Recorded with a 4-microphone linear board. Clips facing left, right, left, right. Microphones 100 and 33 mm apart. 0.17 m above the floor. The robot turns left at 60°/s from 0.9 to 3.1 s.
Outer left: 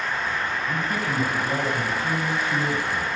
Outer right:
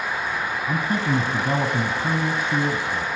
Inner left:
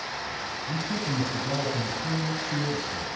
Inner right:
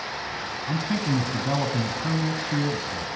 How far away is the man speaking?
About 1.8 m.